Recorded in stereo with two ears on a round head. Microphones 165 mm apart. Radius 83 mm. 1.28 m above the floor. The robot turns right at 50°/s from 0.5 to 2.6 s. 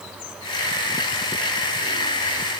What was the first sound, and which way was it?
Only background noise.